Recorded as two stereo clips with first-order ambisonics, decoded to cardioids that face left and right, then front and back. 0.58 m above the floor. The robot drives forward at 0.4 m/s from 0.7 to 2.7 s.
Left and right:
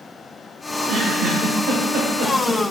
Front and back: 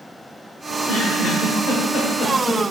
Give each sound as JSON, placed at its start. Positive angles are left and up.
{"t": 0.7, "sound": "a giggle", "azimuth_deg": -40, "distance_m": 1.9}